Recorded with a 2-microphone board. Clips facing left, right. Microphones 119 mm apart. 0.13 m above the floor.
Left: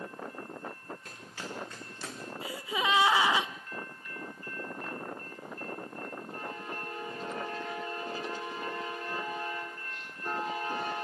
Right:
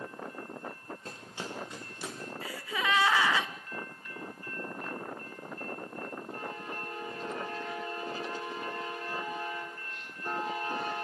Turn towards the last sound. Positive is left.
turn(degrees=20)  # may be behind; listen again after turning